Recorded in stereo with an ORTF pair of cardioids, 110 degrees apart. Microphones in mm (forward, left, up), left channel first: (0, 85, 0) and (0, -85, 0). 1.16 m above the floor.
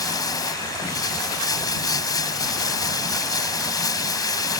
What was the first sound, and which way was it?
Running water, 20° left.